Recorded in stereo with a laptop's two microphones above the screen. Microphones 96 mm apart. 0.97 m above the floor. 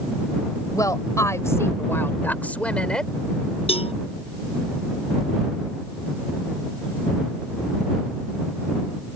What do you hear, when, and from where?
0.7 s a woman speaking: 35° left (ahead or behind); by 3.1 s 5° left (ahead or behind)
3.7 s a cowbell: 75° left (ahead or behind)